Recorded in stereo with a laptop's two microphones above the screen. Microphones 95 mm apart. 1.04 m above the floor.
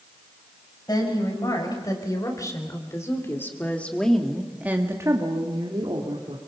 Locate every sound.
0.9 s a woman speaking: 45° left (ahead or behind), 6.5 m; by 6.4 s 75° right (ahead or behind), 3 m